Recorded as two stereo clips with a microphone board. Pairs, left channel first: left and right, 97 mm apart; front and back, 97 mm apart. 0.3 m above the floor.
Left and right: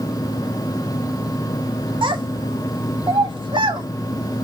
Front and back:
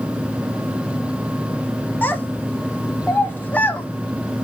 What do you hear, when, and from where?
2.0 s a child speaking: 70° right, 1.3 m